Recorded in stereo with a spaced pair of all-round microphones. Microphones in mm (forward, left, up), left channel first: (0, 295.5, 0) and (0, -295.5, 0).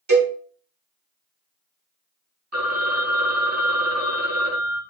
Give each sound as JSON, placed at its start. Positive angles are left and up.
{"t": 0.1, "sound": "a cowbell", "side_deg": -45, "distance_m": 1.6}
{"t": 2.5, "sound": "a phone ringing", "side_deg": -25, "distance_m": 0.8}